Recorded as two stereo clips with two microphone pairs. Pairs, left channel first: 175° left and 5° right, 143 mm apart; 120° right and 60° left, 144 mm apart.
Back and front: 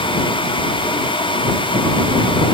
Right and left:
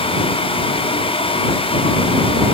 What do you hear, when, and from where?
Only background noise.